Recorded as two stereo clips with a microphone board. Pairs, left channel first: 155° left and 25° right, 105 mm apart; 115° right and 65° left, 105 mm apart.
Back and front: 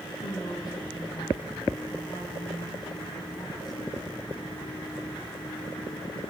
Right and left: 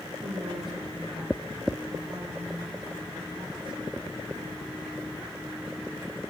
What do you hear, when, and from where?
0.2 s a woman speaking: 105° left, 6.5 m